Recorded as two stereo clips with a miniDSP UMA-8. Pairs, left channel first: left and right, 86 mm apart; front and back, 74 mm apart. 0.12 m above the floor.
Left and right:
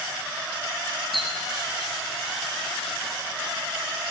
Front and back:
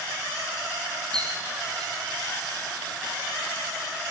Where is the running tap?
Straight behind, 2.5 m.